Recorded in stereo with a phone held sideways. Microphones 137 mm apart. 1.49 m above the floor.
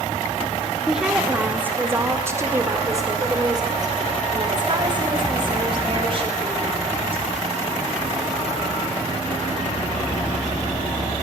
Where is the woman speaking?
5° right (ahead or behind), 3.5 m; by 7.2 s 40° right (ahead or behind), 8 m.